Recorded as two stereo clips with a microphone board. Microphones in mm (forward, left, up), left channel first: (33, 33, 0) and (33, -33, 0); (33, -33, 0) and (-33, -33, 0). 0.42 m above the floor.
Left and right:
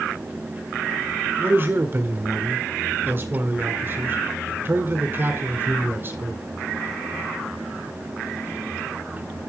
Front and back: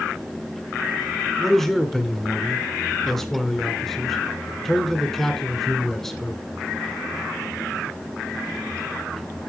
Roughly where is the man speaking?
Right.